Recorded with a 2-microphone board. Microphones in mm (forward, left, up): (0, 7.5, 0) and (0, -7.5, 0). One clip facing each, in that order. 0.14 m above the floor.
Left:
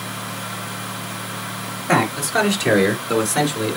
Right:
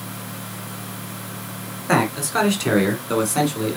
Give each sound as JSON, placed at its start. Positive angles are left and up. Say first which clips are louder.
{"t": 1.9, "sound": "a man speaking", "louder": "left 1 dB", "side_deg": 0, "distance_m": 1.2}